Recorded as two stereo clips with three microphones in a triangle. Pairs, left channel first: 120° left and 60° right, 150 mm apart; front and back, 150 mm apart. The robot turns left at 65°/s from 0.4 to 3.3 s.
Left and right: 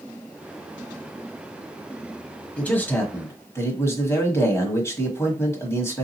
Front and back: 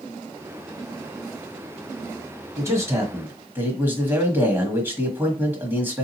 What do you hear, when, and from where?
2.6 s a man speaking: 175° right, 1.2 m; by 6.0 s 135° left, 1.2 m